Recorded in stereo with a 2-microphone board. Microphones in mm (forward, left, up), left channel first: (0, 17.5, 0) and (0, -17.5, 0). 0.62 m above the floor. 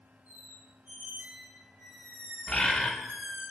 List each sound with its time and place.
0.3 s a squeak: 65° right (ahead or behind), 1.2 m
2.5 s a bird: 20° left (ahead or behind), 0.7 m